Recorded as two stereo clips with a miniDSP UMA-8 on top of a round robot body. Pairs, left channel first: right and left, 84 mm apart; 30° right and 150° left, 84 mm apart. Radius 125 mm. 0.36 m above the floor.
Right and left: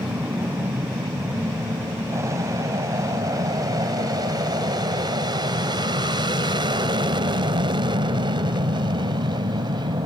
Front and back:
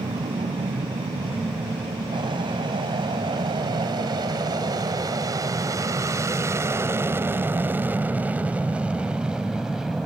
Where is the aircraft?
150° left; by 10.1 s 65° left.